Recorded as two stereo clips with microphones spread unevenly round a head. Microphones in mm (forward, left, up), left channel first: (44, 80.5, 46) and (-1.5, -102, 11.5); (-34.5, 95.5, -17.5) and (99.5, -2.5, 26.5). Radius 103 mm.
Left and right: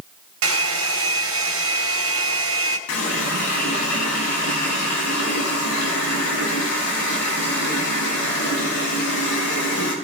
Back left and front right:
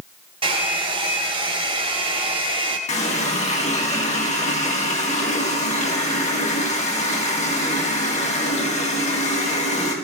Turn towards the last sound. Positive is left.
turn(degrees=95)